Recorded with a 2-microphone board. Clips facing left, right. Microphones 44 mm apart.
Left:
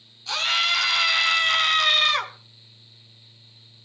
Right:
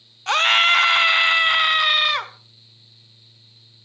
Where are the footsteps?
I don't hear footsteps.